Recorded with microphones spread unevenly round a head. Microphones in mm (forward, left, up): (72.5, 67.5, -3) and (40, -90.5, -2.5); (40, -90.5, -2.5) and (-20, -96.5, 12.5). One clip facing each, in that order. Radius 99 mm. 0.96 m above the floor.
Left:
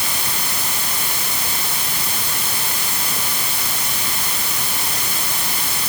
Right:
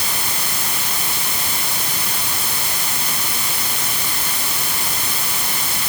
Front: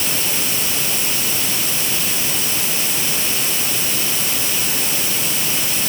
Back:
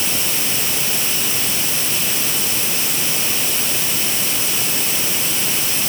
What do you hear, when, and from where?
Only background noise.